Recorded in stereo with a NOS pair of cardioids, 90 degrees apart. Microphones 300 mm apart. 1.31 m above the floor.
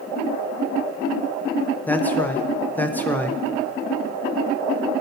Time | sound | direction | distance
1.9 | a man speaking | 5° left | 0.8 m